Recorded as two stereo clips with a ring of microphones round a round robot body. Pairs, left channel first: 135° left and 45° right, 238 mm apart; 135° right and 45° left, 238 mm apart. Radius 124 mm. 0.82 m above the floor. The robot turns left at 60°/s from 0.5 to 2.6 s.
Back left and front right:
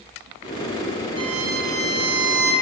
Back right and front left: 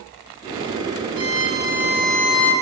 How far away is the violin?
About 5 m.